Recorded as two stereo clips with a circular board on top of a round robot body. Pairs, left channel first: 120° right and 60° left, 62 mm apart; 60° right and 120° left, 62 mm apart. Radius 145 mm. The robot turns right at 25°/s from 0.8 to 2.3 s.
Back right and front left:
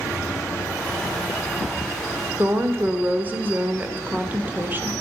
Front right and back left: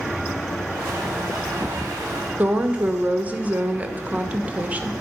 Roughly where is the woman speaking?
Left.